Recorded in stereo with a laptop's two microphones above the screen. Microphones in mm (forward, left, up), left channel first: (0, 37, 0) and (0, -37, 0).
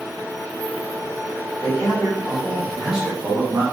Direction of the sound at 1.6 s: 10° left (ahead or behind).